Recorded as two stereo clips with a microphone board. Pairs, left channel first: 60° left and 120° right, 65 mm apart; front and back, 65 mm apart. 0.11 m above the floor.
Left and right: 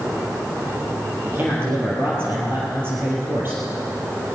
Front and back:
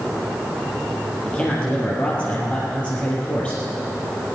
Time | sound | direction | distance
1.2 | a man speaking | 70° right | 3.5 m